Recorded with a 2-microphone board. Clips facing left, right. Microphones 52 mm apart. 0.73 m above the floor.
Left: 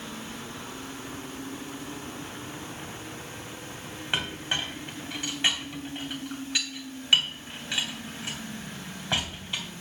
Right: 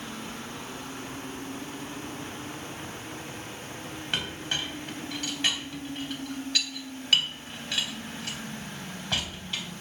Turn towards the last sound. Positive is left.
turn(degrees=15)  # may be behind; listen again after turning